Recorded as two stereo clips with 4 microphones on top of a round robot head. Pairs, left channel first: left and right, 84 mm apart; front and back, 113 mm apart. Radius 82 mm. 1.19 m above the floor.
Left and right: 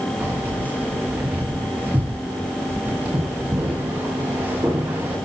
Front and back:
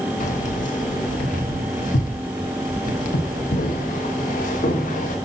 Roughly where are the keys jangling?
Ahead.